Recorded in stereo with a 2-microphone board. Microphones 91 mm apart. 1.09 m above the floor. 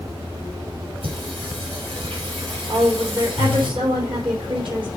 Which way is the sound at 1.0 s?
80° right.